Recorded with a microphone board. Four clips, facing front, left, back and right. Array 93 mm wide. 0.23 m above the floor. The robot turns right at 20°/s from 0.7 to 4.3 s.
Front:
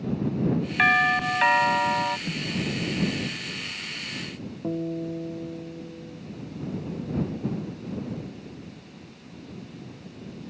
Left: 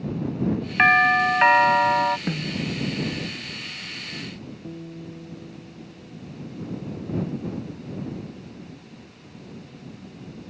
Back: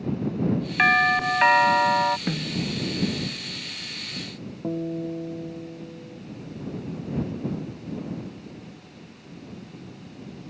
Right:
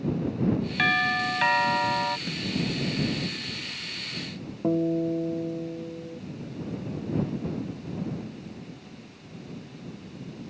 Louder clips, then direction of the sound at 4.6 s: Right 17 dB, back 1 dB; 85° right.